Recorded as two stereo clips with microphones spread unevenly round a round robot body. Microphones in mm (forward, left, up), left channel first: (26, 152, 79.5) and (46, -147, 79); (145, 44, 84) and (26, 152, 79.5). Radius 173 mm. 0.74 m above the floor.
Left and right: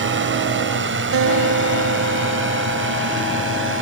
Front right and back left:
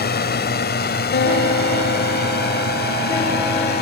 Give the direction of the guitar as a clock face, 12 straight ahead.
1 o'clock.